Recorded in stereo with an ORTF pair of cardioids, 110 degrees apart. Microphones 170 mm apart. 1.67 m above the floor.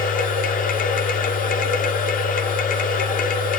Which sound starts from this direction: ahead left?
A machine running, at 0.0 s.